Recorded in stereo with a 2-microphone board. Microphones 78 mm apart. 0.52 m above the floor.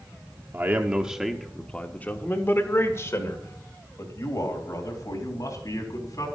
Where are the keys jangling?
I don't hear keys jangling.